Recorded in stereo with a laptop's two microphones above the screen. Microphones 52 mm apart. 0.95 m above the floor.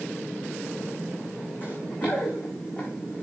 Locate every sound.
1.6 s running footsteps: 40° left (ahead or behind), 3 m; by 3.2 s 25° left (ahead or behind), 4.5 m